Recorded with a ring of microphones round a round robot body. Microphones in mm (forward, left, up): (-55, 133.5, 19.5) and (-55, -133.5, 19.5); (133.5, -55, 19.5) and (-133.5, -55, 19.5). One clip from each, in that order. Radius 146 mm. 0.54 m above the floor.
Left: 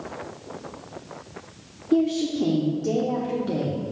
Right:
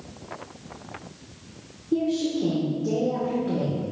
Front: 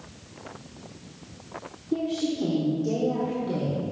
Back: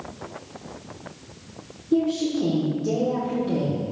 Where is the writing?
I don't hear writing.